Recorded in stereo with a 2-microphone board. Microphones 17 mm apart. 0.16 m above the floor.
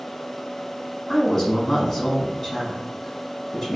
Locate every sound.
1.1 s a woman speaking: 25° left (ahead or behind), 1.1 m